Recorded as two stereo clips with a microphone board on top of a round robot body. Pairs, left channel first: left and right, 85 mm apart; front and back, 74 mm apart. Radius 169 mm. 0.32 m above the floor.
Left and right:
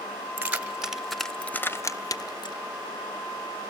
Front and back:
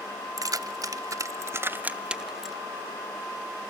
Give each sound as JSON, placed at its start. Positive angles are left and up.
{"t": 0.4, "sound": "keys jangling", "azimuth_deg": -160, "distance_m": 1.4}